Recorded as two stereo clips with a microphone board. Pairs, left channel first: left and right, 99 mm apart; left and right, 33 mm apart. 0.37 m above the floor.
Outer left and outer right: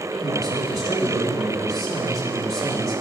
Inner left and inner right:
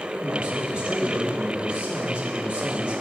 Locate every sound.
0.2 s a man speaking: 35° right (ahead or behind), 1.6 m